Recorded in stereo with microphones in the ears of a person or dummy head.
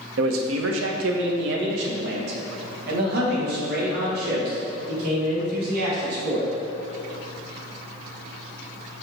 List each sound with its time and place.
0.2 s a man speaking: 70° right (ahead or behind), 0.8 m; by 6.5 s 50° right (ahead or behind), 4 m